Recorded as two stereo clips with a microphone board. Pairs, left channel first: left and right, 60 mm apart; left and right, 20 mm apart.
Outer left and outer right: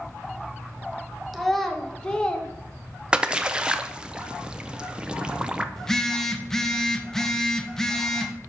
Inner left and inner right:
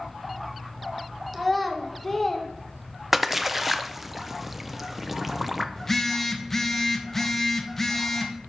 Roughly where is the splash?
Centre.